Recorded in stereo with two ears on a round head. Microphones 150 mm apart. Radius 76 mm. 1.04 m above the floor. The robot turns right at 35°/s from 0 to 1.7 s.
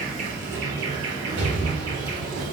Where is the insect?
130° right, 3.5 m; by 2.5 s 70° right, 3.5 m.